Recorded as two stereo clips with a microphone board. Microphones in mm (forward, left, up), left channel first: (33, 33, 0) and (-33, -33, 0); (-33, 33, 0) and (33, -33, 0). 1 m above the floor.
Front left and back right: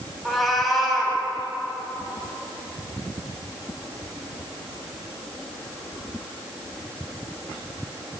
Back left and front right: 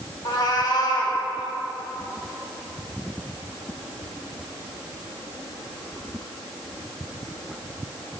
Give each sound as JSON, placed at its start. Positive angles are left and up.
{"t": 0.2, "sound": "a cat meowing", "azimuth_deg": 135, "distance_m": 1.1}